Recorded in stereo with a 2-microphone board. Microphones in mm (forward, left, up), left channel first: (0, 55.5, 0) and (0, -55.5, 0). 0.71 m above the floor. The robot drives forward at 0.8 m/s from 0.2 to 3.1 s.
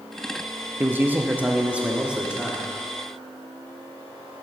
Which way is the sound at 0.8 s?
20° right (ahead or behind).